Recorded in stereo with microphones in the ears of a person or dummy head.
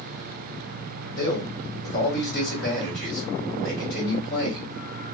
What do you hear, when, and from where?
1.2 s a man speaking: 70° left (ahead or behind), 2.5 m